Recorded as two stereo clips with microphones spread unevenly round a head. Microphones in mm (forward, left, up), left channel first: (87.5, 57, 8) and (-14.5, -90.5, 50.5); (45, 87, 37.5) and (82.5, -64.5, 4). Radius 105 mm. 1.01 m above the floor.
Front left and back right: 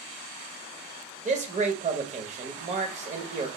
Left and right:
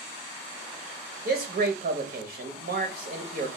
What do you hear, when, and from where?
1.2 s a man speaking: 70° right, 1.1 m